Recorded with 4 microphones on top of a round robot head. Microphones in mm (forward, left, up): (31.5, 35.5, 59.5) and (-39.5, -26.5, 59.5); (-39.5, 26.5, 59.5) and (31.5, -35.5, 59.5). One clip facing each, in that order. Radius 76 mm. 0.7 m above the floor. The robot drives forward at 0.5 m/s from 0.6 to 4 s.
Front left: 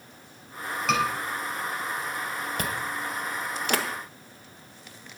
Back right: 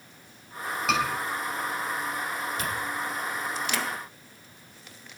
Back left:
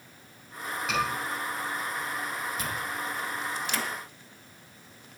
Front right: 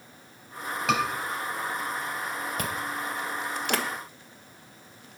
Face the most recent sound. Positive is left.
turn(degrees=-5)